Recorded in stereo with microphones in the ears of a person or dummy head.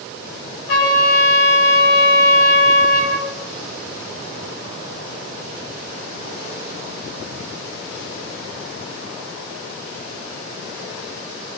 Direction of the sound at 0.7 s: 70° left (ahead or behind).